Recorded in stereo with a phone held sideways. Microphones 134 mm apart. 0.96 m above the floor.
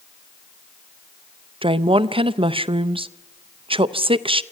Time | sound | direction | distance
1.6 | a woman speaking | 45° right (ahead or behind) | 0.5 m